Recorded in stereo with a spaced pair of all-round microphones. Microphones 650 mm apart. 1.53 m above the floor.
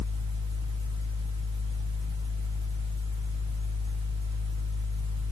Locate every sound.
0.0 s a fan: 10° right (ahead or behind), 0.7 m